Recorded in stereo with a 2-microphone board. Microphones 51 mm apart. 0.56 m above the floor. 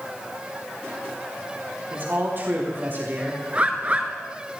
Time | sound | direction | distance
1.9 | a man speaking | 45° right (ahead or behind) | 4 m
3.5 | a bird | 30° right (ahead or behind) | 1.7 m